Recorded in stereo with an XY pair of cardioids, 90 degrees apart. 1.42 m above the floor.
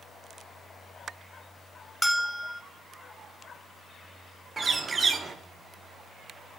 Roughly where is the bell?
Ahead.